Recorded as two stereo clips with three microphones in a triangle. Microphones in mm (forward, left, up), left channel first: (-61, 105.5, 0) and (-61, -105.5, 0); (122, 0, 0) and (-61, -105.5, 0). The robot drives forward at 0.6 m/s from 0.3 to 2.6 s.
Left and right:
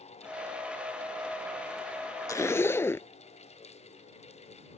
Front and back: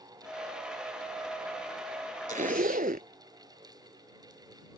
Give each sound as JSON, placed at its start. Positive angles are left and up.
{"t": 2.3, "sound": "a zipper", "azimuth_deg": 165}